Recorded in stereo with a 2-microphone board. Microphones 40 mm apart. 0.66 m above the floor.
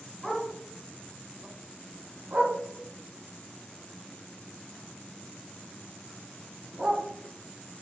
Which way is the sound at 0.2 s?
5° right (ahead or behind).